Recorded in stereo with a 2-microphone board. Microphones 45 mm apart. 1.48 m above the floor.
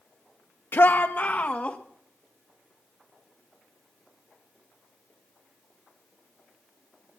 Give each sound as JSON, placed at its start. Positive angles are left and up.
{"t": 0.7, "sound": "a shout", "side_deg": 55, "distance_m": 0.8}